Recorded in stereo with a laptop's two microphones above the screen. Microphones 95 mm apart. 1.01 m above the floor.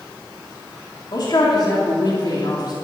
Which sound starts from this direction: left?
A man speaking, at 1.1 s.